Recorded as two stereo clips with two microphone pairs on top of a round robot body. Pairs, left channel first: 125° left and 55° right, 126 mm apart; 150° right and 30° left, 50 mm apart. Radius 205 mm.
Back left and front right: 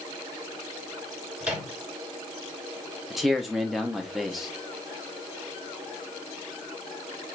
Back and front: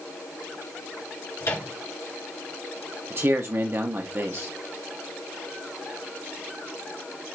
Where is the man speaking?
25° left, 0.8 m.